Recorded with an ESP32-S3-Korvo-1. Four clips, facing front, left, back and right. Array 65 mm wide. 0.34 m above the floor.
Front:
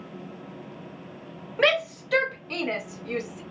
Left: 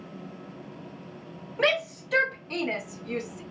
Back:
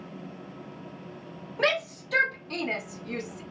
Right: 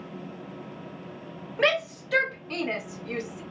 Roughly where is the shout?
Ahead.